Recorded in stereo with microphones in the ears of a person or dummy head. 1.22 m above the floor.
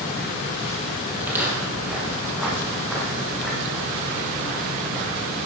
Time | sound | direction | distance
1.2 | footsteps | 10° right (ahead or behind) | 1.7 m